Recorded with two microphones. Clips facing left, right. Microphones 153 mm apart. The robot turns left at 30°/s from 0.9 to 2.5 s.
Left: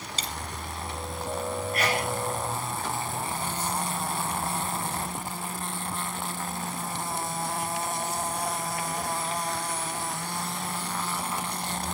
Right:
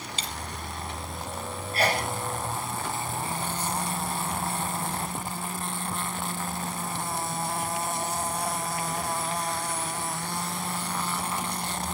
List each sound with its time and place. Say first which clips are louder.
0.2 s a dropped coin: left 2 dB; 40° left (ahead or behind), 1.6 m
1.7 s a sneeze: right 3 dB; 30° right (ahead or behind), 5 m; by 2.1 s 40° right (ahead or behind), 5 m